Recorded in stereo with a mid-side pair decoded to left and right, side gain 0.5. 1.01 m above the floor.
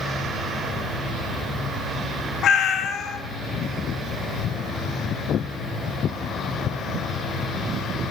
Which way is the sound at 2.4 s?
60° left.